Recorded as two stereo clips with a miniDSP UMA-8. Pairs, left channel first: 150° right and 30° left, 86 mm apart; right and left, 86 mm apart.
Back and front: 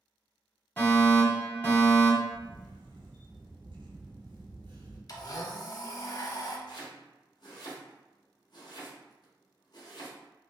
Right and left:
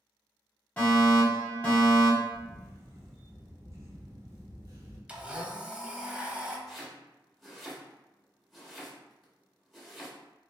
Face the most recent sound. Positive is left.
turn(degrees=180)